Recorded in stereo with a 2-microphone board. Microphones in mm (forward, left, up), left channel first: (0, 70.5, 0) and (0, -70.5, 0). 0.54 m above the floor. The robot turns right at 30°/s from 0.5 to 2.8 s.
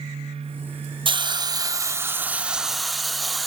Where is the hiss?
55° right, 0.5 m; by 3.5 s straight ahead, 0.5 m.